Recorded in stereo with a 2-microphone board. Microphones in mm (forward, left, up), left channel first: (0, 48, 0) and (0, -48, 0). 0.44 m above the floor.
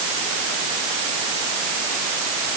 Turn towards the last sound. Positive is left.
No sound to turn to.